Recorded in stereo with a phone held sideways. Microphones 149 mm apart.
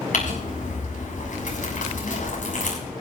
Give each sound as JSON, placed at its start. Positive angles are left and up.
{"t": 0.1, "sound": "crumpling", "side_deg": 75, "distance_m": 6.5}